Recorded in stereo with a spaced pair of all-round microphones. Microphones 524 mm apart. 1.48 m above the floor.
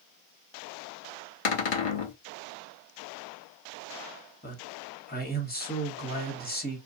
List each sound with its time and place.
1.4 s a cupboard door: 70° left (ahead or behind), 0.6 m
4.4 s a man speaking: 15° left (ahead or behind), 1.0 m